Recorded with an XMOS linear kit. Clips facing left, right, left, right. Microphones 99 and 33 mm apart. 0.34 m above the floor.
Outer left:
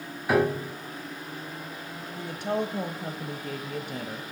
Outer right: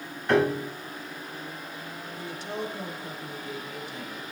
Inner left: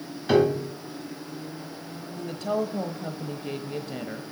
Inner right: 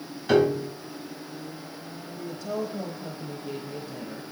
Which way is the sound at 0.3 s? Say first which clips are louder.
Outer right 1 dB, even; 5° left (ahead or behind).